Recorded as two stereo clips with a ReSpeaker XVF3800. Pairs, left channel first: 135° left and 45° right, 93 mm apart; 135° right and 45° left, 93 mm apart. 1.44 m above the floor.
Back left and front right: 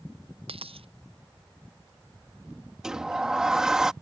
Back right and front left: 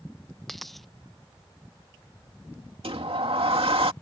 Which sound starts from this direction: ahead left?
A sliding door, at 2.8 s.